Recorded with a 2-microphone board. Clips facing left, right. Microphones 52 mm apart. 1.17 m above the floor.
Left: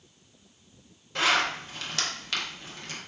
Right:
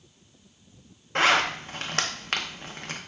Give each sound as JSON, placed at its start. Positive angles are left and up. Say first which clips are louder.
{"t": 1.1, "sound": "a zipper", "louder": "right 3 dB", "side_deg": -45, "distance_m": 0.5}